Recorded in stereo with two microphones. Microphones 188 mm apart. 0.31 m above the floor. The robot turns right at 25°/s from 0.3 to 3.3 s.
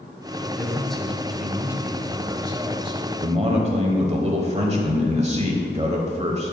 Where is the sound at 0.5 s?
165° left, 1.2 m; by 3.1 s 130° right, 1.2 m.